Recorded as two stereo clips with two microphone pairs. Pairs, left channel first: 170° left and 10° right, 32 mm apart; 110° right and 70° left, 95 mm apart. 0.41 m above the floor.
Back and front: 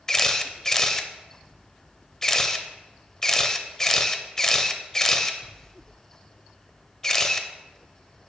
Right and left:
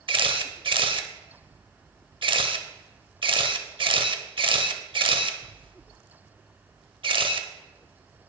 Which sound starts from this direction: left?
A camera shutter, at 0.1 s.